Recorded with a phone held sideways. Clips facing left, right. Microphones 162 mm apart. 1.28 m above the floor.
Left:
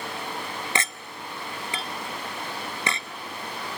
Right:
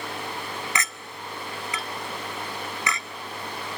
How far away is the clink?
About 0.6 m.